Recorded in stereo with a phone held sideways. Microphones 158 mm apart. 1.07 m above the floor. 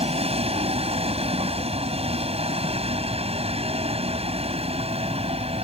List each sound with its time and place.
0.0 s a vehicle: 40° right (ahead or behind)